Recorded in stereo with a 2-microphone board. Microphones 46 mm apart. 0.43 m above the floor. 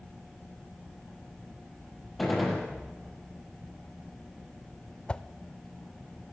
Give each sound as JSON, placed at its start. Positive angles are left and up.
{"t": 2.2, "sound": "a gunshot", "side_deg": 0, "distance_m": 5.5}
{"t": 5.1, "sound": "a whoosh", "side_deg": 20, "distance_m": 0.6}